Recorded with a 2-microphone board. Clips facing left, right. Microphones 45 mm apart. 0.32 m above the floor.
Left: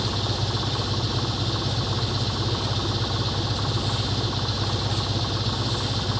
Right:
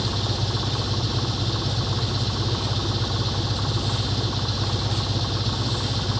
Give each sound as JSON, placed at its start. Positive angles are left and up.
{"t": 0.0, "sound": "an engine running", "side_deg": 5}